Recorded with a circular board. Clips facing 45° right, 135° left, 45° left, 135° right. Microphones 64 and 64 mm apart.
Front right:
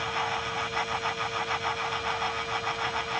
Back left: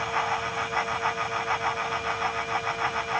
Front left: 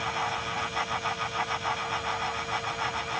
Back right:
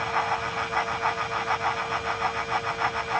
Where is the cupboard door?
I don't hear a cupboard door.